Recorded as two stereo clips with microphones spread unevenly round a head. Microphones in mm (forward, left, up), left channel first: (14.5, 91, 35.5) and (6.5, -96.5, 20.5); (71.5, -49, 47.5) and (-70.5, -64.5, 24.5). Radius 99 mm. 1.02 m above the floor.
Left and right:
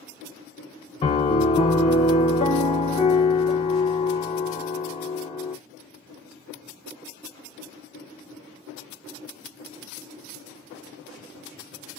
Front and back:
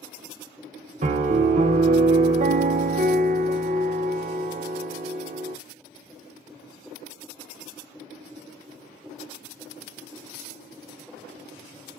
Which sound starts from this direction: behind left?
A piano, at 1.0 s.